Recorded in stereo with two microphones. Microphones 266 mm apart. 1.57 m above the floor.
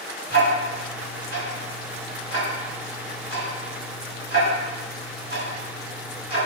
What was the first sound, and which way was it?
Ticking, 35° right (ahead or behind).